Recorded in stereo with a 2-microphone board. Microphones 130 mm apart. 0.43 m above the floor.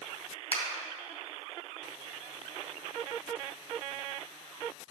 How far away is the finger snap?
About 2 m.